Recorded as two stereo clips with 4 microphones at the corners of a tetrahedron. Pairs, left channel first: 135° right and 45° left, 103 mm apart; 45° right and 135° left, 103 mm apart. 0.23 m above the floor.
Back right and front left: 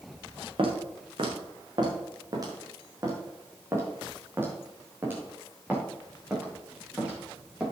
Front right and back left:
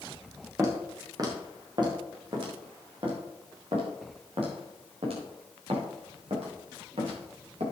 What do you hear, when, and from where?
0.6 s footsteps: 75° left, 4 m; by 7.6 s 125° left, 8.5 m